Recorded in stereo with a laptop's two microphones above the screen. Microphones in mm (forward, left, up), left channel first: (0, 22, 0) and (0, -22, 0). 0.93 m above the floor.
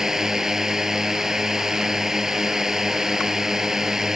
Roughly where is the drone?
Centre.